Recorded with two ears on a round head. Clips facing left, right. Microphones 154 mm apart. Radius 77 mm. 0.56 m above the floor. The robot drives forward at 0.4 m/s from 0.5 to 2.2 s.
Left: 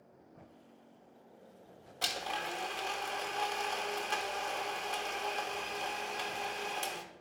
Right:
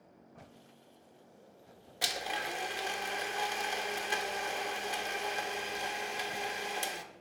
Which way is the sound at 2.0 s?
15° right (ahead or behind).